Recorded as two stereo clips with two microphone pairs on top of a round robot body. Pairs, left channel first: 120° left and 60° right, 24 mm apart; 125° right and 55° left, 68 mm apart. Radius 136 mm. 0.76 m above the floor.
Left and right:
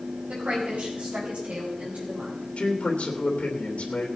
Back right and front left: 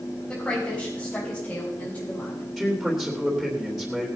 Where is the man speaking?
135° left, 3 m.